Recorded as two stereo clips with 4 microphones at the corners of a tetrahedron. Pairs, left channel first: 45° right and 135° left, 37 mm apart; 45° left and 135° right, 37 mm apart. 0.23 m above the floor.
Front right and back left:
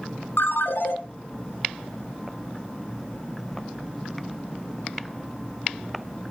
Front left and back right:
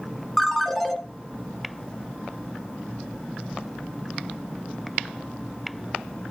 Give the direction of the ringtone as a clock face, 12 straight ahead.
1 o'clock.